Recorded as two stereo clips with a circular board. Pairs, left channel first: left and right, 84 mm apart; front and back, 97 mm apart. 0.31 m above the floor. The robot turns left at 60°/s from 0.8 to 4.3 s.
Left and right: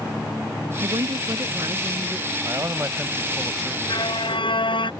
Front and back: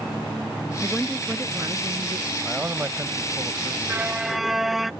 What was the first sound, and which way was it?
A woman speaking, 80° right.